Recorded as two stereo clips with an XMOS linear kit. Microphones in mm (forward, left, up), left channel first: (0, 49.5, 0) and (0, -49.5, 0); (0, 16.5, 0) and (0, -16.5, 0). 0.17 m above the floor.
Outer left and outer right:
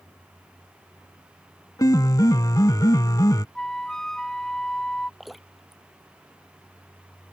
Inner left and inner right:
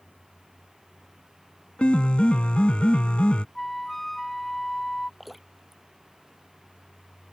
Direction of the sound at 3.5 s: 5° left (ahead or behind).